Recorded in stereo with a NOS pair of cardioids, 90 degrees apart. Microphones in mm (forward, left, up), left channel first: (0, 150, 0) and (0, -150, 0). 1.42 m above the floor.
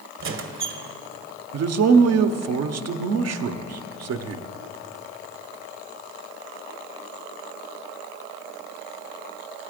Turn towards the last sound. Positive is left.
turn(degrees=-55)